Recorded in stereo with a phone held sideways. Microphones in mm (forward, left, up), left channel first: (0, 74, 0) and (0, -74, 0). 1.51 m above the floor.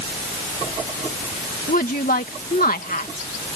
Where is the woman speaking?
75° left (ahead or behind).